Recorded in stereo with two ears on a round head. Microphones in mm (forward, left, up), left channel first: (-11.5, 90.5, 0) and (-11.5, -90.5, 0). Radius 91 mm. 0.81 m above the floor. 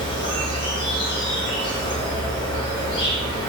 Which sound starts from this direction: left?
An insect, at 0.0 s.